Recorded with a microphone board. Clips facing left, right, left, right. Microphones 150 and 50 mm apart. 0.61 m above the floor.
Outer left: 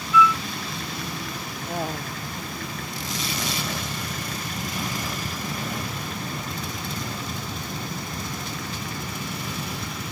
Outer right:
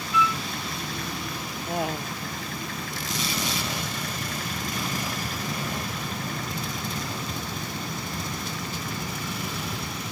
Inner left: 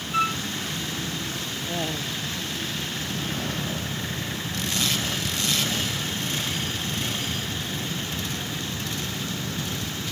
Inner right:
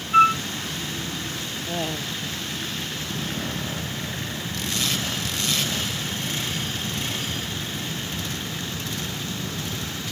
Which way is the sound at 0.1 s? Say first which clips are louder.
Outer left 6 dB, inner right 9 dB; 35° right (ahead or behind).